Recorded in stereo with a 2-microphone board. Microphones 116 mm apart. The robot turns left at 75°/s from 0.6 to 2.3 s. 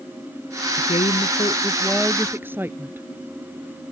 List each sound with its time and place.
0.8 s a woman speaking: 95° left; by 3.1 s 20° right